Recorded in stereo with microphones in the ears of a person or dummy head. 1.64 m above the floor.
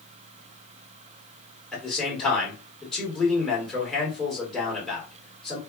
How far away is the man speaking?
About 1.8 m.